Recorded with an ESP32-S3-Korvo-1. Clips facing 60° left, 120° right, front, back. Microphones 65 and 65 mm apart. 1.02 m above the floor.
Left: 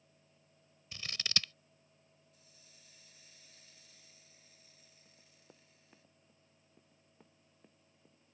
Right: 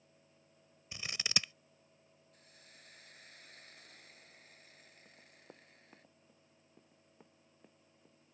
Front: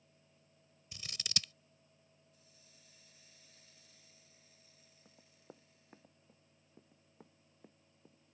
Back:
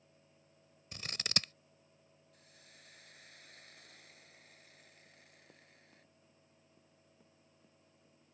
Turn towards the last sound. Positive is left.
turn(degrees=-35)